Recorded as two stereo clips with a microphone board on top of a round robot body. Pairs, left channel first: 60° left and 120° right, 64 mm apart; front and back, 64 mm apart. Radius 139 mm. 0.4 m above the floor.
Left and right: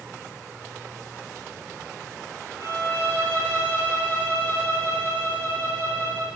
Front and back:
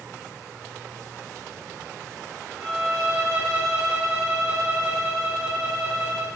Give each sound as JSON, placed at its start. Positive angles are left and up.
{"t": 2.6, "sound": "a violin", "azimuth_deg": -145, "distance_m": 8.5}